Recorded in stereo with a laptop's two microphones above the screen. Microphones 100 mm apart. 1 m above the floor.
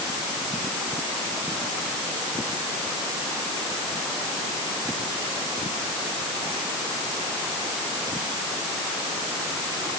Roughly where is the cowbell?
I don't hear a cowbell.